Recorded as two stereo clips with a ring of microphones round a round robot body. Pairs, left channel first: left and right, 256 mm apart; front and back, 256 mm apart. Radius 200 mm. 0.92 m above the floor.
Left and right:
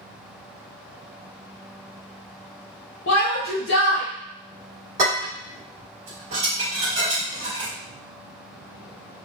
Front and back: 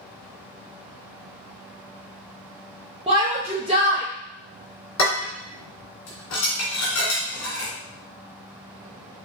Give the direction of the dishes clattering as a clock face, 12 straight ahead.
1 o'clock.